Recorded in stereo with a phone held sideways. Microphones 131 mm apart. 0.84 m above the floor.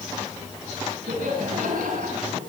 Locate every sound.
1.1 s laughter: 85° right, 8 m; by 2.4 s 80° right, 7.5 m